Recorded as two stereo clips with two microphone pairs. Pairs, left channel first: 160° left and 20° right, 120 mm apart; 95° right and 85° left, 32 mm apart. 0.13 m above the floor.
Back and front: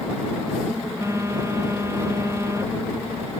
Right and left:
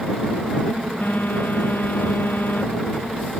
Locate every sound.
1.0 s a phone buzzing: 90° right